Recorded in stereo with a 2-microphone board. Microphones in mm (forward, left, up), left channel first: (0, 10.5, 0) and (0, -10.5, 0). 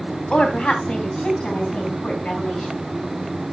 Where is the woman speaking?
60° left (ahead or behind), 3 m.